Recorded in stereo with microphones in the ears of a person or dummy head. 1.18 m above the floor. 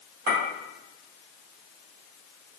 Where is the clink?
55° right (ahead or behind), 1.7 m.